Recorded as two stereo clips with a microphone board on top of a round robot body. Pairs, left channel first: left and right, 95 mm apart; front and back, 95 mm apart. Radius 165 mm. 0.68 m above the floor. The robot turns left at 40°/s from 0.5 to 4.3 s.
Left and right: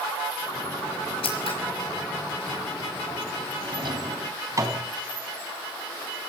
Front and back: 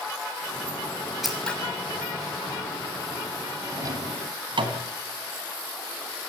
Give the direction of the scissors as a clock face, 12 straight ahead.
9 o'clock.